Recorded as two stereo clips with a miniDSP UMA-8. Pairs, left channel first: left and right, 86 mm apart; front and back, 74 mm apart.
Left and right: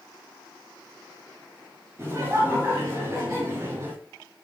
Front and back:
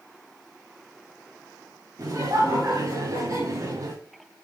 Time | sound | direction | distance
2.0 | laughter | 150° right | 5 m